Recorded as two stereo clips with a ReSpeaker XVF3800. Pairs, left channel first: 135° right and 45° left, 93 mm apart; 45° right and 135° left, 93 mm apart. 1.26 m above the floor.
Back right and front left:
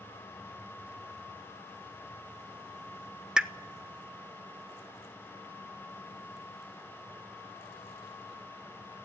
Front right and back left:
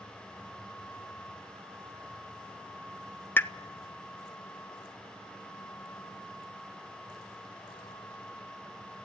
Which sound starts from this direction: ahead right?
A pop, at 3.4 s.